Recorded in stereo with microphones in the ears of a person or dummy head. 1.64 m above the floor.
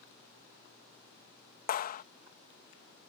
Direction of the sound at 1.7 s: 50° left (ahead or behind).